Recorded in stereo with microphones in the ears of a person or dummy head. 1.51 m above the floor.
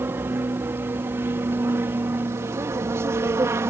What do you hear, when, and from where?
0.0 s an aircraft: 15° right (ahead or behind)